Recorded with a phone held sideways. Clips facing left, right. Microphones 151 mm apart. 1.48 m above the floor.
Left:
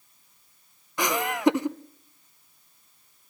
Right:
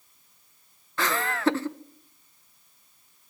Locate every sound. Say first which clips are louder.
1.0 s laughter: left 3 dB; 15° left (ahead or behind), 0.7 m